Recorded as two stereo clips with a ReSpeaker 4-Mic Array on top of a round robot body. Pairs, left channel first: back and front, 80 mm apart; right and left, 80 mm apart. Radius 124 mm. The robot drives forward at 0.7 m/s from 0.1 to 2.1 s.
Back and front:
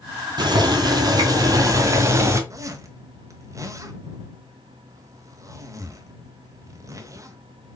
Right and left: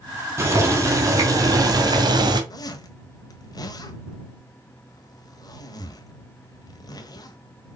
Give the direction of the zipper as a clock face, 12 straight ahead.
2 o'clock.